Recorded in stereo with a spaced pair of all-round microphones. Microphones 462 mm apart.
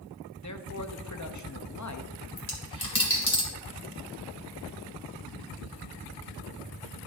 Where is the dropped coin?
50° left (ahead or behind), 2 m.